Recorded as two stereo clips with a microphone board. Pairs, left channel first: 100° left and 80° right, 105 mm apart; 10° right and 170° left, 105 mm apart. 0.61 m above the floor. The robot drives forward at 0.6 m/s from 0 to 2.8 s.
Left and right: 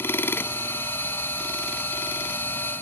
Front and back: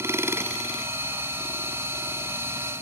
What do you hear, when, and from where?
Only background noise.